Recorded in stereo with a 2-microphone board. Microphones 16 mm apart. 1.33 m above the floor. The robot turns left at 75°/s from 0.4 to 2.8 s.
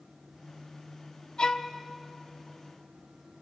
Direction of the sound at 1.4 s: 60° left (ahead or behind).